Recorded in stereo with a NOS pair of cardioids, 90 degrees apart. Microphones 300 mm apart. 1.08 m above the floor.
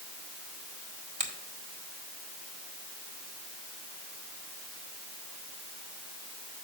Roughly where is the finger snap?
Ahead right.